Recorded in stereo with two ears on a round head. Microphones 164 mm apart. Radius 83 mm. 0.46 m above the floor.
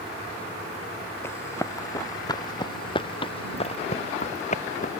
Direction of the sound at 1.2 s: 15° left (ahead or behind).